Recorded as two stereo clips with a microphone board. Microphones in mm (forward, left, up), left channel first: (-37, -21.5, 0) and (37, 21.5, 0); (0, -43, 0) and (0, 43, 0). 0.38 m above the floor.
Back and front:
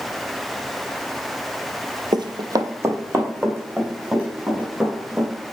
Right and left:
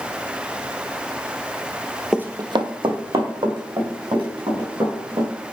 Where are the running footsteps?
10° left, 0.5 m; by 5.3 s 105° left, 5 m.